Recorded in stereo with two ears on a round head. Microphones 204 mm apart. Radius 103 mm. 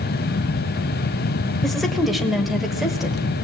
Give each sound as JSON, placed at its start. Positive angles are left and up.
{"t": 1.6, "sound": "a woman speaking", "side_deg": 0, "distance_m": 1.5}